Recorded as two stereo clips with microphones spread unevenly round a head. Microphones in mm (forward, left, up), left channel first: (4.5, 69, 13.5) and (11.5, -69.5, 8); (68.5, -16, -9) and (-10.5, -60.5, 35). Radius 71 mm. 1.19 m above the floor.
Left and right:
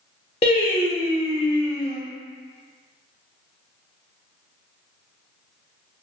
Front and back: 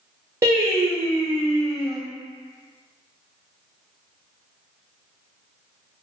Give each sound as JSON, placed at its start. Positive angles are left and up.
{"t": 0.4, "sound": "singing", "azimuth_deg": 125, "distance_m": 0.9}